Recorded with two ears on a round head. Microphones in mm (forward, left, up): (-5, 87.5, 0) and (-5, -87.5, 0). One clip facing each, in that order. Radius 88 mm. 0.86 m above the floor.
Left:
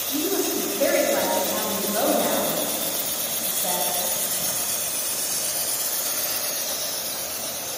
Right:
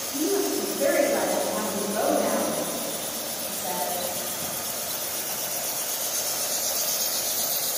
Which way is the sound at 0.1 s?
45° left (ahead or behind).